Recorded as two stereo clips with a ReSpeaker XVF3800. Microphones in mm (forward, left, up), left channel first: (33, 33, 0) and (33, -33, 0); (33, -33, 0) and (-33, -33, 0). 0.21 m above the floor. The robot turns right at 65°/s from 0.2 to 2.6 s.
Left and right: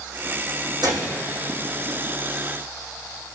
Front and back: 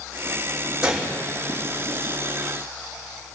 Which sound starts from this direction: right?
A gunshot, at 0.8 s.